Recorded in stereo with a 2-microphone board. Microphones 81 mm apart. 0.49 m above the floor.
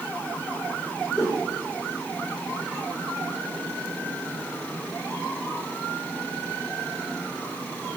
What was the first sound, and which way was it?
A whoosh, centre (ahead or behind).